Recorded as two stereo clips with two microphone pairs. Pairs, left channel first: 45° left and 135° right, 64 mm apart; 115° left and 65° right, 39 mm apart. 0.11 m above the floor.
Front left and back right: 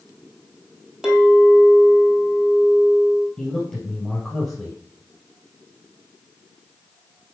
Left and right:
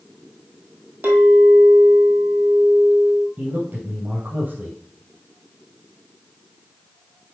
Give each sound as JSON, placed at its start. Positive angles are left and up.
{"t": 1.0, "sound": "a clink", "azimuth_deg": -50, "distance_m": 2.0}
{"t": 3.4, "sound": "a man speaking", "azimuth_deg": -35, "distance_m": 3.0}